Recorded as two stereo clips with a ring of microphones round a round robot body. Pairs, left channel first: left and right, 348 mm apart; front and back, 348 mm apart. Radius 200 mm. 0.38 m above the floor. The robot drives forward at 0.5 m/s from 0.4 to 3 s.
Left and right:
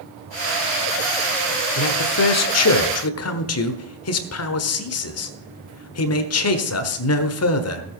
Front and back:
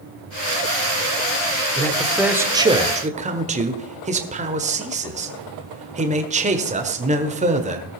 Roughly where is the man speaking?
Left.